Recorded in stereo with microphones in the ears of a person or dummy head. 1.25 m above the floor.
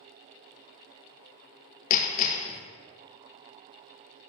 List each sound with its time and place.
1.9 s hammering: 40° left (ahead or behind), 0.5 m